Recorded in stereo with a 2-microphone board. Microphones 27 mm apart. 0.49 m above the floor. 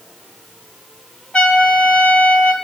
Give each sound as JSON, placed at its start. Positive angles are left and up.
{"t": 1.3, "sound": "a trumpet", "side_deg": 45, "distance_m": 2.5}